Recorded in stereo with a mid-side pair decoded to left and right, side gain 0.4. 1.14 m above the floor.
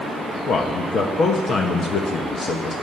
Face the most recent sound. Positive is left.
turn(degrees=65)